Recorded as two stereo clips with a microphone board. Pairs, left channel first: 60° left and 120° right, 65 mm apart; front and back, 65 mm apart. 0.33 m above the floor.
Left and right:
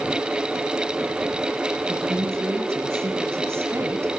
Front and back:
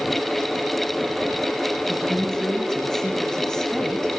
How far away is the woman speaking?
About 2.5 m.